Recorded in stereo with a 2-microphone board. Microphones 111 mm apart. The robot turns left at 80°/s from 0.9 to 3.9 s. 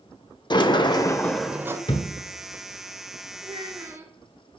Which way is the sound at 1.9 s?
45° left (ahead or behind).